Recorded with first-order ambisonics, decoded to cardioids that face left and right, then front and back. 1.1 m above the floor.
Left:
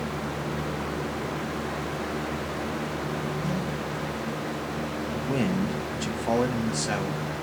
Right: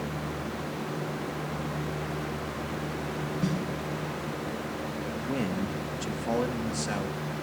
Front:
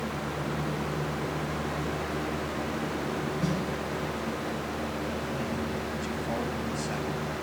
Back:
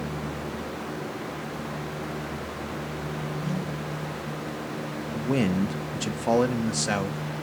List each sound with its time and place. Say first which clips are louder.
3.4 s a snare drum: left 1 dB, front 2 dB; 55° right, 7.5 m
5.1 s a man speaking: left 5 dB, back 5 dB; 165° left, 1.5 m